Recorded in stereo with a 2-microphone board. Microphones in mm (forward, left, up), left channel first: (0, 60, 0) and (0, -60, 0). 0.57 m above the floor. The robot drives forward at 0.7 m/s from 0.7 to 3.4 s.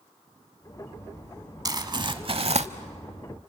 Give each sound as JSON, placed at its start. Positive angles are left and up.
{"t": 1.6, "sound": "crumpling", "side_deg": -30, "distance_m": 1.1}